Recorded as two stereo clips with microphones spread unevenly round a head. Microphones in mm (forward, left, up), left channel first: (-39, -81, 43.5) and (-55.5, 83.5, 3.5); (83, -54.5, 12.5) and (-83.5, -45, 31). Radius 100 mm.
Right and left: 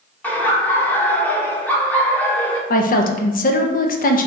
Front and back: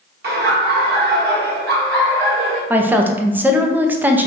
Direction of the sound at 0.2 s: 170° right.